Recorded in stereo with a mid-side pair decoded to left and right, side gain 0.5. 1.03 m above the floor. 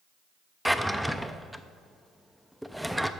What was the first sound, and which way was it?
A drawer, straight ahead.